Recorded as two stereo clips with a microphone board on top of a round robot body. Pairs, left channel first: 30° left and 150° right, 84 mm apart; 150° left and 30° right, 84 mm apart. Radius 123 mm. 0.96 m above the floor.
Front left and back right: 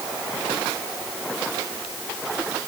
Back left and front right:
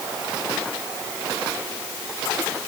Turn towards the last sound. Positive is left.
No sound to turn to.